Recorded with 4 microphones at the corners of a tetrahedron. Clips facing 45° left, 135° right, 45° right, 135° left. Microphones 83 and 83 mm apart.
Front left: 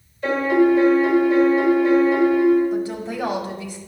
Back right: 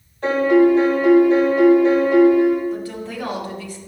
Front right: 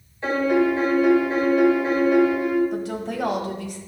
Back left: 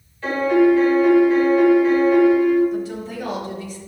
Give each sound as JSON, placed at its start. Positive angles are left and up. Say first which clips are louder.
{"t": 0.2, "sound": "a piano", "louder": "back right 3 dB, back left 4 dB", "azimuth_deg": -110, "distance_m": 2.5}
{"t": 2.7, "sound": "a woman speaking", "louder": "front left 3 dB, back left 1 dB", "azimuth_deg": -25, "distance_m": 1.1}